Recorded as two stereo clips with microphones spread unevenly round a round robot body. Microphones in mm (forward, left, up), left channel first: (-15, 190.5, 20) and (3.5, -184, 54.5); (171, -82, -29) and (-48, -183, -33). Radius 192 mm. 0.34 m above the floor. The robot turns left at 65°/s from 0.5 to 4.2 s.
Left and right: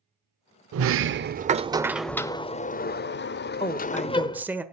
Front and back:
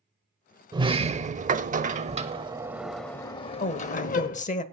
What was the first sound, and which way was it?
A sliding door, 100° right.